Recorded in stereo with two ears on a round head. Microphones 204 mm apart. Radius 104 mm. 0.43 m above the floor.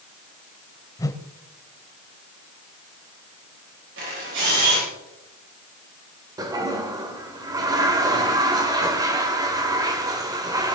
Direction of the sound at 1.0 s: 15° left (ahead or behind).